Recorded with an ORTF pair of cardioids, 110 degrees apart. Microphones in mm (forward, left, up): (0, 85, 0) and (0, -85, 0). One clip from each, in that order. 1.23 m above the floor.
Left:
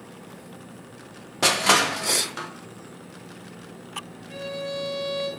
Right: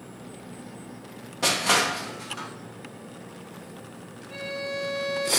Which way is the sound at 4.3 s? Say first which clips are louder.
Left 1 dB; 65° left.